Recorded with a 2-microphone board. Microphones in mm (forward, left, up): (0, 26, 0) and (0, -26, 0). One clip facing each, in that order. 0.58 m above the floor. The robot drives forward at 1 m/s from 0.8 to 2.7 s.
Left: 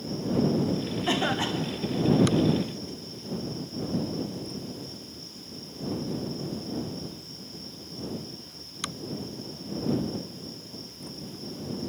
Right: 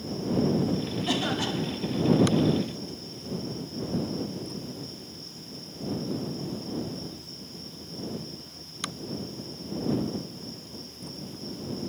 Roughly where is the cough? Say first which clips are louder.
Left 2 dB; left.